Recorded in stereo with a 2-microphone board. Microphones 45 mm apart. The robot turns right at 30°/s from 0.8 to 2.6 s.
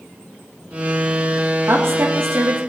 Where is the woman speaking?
70° right (ahead or behind), 1.6 m; by 2.6 s 60° right (ahead or behind), 1.6 m.